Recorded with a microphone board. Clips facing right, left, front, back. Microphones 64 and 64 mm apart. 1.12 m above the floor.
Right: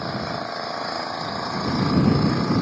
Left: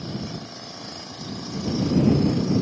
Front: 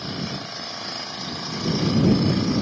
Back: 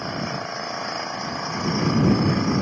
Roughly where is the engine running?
Behind right.